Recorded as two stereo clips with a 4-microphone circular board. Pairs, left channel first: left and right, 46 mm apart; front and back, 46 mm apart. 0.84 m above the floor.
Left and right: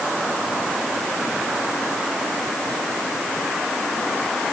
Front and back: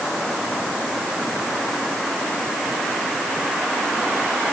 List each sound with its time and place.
Only background noise.